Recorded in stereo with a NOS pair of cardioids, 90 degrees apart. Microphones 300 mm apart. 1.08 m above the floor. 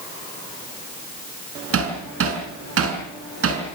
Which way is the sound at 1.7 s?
50° right.